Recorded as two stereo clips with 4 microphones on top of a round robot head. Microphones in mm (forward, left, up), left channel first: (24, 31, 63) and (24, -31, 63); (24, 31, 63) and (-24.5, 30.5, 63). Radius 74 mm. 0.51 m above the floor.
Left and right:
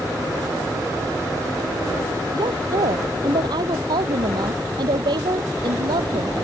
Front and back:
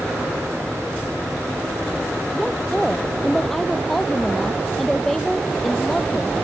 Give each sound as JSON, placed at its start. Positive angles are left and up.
{"t": 2.3, "sound": "a woman speaking", "azimuth_deg": -85}